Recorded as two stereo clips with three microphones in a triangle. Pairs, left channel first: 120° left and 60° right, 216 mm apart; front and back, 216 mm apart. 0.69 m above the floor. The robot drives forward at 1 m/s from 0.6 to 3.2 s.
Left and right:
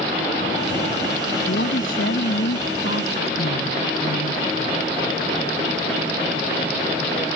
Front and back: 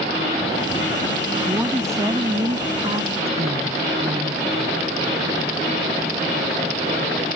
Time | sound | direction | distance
1.5 | a woman speaking | 100° left | ?